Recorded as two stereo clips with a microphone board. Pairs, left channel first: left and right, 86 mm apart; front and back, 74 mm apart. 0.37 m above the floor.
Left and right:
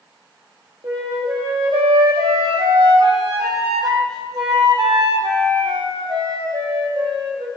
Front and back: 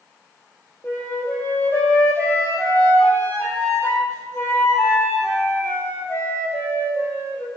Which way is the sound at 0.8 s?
60° right.